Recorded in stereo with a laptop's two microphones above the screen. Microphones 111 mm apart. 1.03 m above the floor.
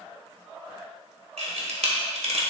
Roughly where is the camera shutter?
Right.